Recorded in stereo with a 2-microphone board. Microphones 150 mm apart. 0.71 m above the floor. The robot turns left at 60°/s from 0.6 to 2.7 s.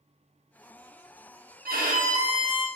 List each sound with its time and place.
1.6 s a violin: 95° right, 0.6 m; by 2.7 s 155° right, 0.6 m